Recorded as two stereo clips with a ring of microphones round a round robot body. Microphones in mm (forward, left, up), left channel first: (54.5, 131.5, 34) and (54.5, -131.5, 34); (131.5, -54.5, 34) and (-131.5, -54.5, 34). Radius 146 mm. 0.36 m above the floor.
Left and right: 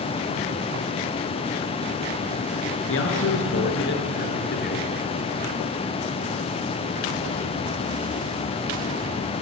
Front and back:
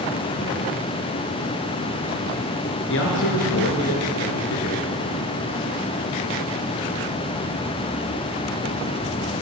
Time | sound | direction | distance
2.9 | a man speaking | 50° left | 5.5 m